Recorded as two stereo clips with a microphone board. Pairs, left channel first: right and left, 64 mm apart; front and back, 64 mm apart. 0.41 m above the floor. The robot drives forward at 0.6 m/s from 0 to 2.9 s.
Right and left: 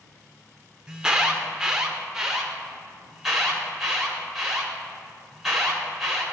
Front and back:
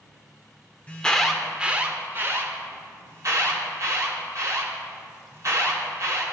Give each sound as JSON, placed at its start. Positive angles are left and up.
{"t": 0.9, "sound": "an alarm", "azimuth_deg": 20, "distance_m": 0.7}